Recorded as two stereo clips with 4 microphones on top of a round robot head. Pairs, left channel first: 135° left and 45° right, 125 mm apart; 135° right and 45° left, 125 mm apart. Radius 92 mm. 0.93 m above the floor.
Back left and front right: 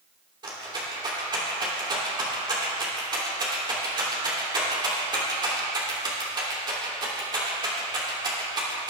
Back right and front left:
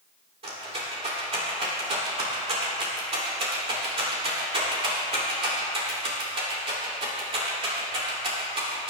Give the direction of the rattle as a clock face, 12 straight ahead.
12 o'clock.